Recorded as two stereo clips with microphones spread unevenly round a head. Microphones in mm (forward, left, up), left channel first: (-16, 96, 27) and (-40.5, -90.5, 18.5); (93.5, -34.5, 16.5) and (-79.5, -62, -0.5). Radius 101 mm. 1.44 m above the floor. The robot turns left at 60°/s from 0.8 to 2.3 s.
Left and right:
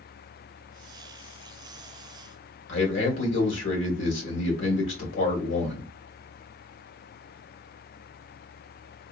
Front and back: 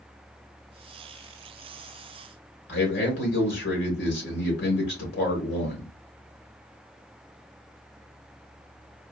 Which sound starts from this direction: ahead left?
A man speaking, at 2.7 s.